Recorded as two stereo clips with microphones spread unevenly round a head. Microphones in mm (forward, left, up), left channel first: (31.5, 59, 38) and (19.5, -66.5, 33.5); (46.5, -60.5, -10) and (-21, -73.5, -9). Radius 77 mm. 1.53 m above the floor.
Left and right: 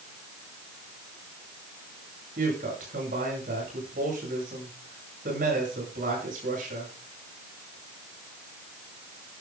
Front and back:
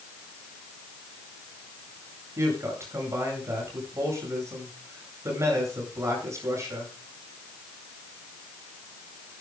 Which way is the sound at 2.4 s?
125° right.